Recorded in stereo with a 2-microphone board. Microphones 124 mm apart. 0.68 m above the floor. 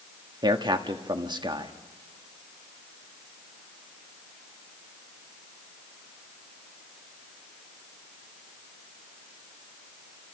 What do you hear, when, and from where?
0.4 s a man speaking: 35° right (ahead or behind), 1.4 m